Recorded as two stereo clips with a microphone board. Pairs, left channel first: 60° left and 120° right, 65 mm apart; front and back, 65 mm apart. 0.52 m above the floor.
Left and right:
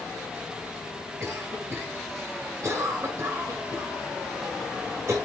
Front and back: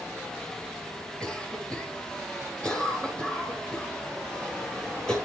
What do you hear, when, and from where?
1.2 s a cough: 80° right, 7 m